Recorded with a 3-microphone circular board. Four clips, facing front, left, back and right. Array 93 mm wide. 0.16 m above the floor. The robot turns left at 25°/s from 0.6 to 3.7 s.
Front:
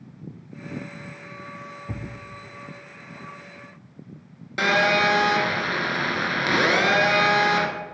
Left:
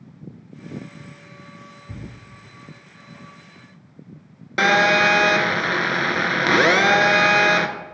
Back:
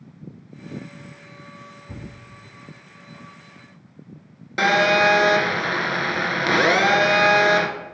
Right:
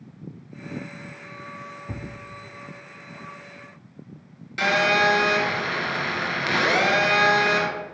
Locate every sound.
1.9 s a thud: 35° right, 2.5 m; by 2.1 s 45° right, 2.5 m
4.6 s a phone buzzing: 105° left, 1.9 m